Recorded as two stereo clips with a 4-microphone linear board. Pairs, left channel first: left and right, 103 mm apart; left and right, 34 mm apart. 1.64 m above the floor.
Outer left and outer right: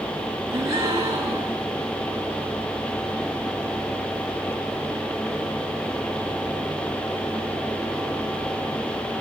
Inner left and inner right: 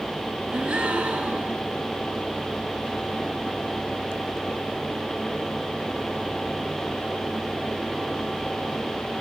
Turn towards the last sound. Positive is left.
turn(degrees=-30)  # may be behind; listen again after turning